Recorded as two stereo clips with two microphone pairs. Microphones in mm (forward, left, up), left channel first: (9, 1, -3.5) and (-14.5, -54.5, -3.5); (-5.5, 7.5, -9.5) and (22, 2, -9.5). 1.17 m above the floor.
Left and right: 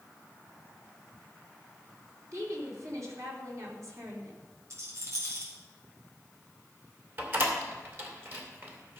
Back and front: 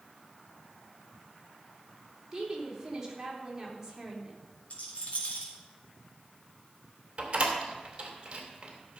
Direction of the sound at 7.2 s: 60° right.